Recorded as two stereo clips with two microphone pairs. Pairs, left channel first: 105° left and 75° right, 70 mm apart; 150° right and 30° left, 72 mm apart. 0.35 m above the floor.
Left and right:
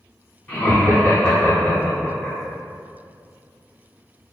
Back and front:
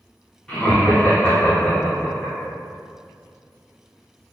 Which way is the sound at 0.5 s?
145° left.